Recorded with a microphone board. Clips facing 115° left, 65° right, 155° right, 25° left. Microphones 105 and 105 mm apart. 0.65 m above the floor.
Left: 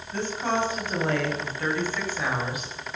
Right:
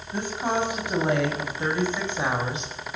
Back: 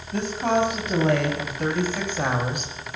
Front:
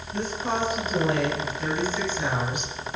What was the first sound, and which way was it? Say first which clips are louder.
A woman speaking: even, back 5 dB; 140° right.